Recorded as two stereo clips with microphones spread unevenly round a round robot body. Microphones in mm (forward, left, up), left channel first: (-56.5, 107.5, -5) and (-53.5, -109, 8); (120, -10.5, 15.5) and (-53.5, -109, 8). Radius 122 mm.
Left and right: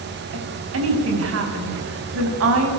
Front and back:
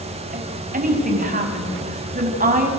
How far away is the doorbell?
No doorbell in this recording.